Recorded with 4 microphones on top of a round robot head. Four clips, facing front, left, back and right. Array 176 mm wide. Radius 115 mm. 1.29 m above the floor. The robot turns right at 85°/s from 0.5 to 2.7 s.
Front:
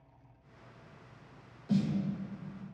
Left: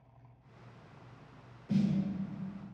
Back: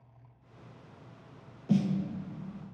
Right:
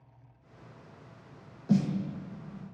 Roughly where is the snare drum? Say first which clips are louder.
Right 3 dB, back 2 dB; behind right.